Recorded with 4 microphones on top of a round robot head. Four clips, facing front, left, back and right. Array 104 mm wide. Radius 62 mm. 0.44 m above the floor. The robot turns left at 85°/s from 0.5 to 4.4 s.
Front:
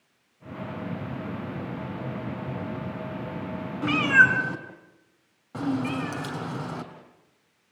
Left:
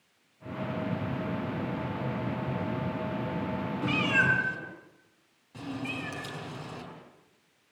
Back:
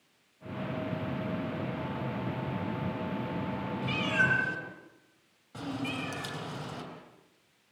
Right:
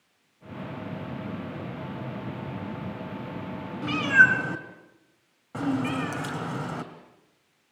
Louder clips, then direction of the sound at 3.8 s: Right 8 dB, front 10 dB; straight ahead.